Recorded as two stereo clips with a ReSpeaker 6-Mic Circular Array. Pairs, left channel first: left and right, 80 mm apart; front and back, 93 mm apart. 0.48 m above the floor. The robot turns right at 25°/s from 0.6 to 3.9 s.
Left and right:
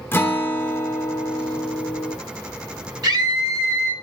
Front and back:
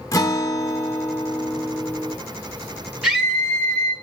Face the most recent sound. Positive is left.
turn(degrees=-75)